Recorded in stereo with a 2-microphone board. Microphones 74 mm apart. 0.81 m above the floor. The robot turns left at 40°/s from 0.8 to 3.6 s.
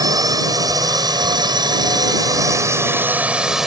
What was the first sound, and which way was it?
A drone, 60° right.